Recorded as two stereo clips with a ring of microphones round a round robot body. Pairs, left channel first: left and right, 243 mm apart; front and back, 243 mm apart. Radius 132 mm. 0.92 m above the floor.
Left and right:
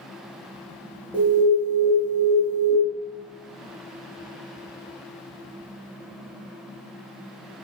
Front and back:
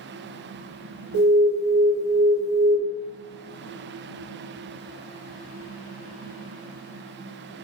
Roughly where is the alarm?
Ahead.